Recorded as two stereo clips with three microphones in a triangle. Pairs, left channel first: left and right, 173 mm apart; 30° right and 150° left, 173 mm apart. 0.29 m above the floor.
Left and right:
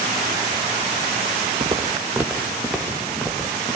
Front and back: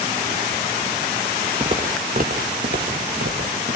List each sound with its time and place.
1.6 s footsteps: 150° right, 1.9 m; by 3.8 s 165° left, 3.5 m